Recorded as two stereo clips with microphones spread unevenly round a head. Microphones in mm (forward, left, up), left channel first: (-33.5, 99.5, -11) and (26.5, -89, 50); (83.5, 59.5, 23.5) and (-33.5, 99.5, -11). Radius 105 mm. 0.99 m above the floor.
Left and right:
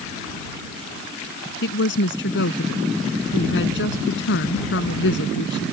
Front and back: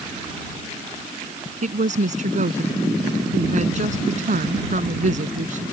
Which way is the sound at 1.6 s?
140° left.